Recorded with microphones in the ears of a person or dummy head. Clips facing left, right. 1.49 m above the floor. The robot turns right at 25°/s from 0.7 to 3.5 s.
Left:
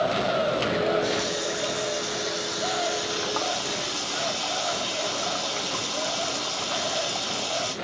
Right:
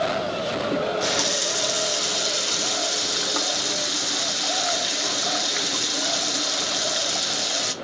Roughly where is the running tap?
Right.